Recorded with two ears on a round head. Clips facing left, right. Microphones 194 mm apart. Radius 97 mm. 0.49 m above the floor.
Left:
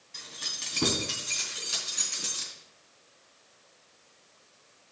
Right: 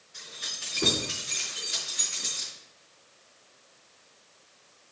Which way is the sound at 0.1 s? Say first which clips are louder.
Even; 75° left (ahead or behind).